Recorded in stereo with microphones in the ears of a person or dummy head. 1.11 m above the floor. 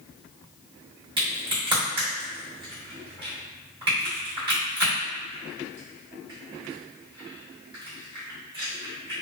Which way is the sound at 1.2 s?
30° right (ahead or behind).